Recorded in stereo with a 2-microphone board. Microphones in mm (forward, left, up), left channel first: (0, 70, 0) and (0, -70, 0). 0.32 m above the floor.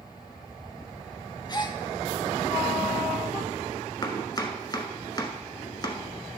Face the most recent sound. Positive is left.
turn(degrees=30)  # may be behind; listen again after turning